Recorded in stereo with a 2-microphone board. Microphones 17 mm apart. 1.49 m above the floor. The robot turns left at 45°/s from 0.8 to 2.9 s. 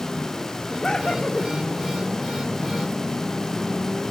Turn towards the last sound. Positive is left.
turn(degrees=35)